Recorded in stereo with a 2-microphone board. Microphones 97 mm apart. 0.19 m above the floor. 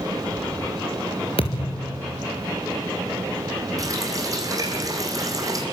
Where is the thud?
70° left (ahead or behind), 3 m.